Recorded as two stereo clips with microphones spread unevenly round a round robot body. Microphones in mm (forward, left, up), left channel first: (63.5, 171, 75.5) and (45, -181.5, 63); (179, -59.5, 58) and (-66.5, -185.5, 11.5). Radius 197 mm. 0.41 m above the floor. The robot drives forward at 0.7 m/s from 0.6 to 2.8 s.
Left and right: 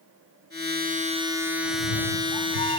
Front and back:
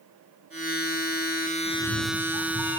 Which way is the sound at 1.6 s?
90° left.